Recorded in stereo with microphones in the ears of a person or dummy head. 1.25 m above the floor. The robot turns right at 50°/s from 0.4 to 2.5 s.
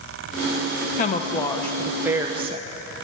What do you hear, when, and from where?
1.0 s a woman speaking: 140° left, 0.9 m; by 2.7 s 145° right, 0.9 m